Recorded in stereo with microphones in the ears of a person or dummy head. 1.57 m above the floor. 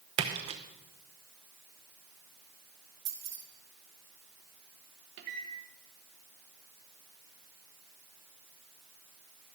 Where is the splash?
30° right (ahead or behind), 0.8 m.